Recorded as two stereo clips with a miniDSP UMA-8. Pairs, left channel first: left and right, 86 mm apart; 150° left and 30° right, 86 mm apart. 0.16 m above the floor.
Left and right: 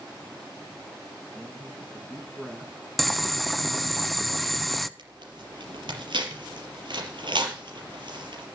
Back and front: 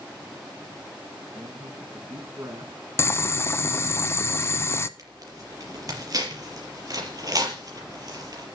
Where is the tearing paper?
75° right, 5 m.